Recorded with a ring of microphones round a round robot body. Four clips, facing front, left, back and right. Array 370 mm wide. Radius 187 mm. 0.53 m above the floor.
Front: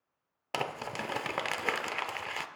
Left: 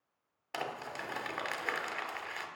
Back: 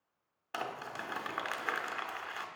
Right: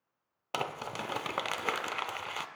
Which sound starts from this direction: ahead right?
Crumpling, at 0.5 s.